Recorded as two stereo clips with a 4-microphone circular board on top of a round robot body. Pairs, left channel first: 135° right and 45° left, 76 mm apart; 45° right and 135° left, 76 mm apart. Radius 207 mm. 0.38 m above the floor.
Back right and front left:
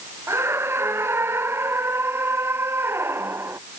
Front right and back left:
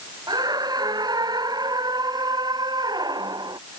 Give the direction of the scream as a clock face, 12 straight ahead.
9 o'clock.